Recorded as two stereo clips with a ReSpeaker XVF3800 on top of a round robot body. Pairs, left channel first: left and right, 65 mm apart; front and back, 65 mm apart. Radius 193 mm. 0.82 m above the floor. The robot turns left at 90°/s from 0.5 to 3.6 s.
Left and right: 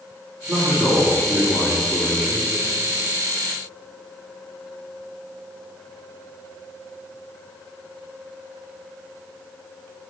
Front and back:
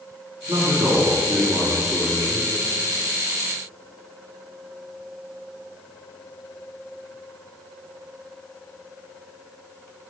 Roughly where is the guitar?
I don't hear a guitar.